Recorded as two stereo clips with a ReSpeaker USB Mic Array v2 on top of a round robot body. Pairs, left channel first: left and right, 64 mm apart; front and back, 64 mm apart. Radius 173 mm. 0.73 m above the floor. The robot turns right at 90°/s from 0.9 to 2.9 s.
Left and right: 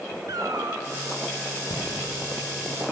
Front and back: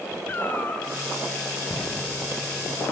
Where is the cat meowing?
60° right, 1.0 m.